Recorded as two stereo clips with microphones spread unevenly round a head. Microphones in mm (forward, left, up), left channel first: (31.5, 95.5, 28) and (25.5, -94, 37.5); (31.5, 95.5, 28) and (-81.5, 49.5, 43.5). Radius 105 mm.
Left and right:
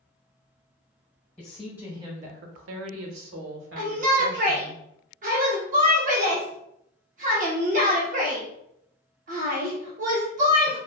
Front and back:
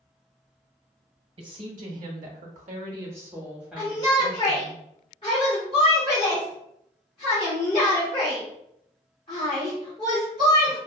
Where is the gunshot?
No gunshot in this recording.